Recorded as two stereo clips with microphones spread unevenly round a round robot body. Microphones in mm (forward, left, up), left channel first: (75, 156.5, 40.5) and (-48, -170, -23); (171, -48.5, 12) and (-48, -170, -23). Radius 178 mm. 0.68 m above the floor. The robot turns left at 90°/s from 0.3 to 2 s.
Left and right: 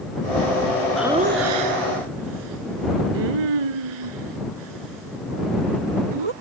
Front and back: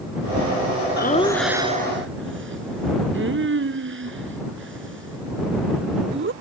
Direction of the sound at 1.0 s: 20° right.